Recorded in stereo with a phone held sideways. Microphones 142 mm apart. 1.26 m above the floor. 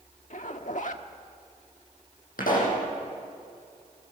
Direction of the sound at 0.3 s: 60° left (ahead or behind).